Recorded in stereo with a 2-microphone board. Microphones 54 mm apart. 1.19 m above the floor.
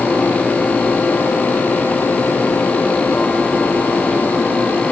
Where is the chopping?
I don't hear chopping.